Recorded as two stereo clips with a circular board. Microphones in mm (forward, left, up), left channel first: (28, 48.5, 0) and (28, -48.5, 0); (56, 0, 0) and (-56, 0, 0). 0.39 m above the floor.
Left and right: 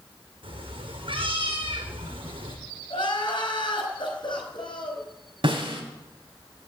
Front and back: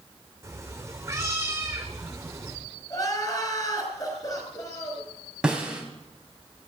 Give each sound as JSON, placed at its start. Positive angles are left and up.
{"t": 0.4, "sound": "a cat meowing", "azimuth_deg": -115, "distance_m": 4.0}
{"t": 2.9, "sound": "crying", "azimuth_deg": 55, "distance_m": 5.0}
{"t": 5.4, "sound": "a snare drum", "azimuth_deg": -100, "distance_m": 3.0}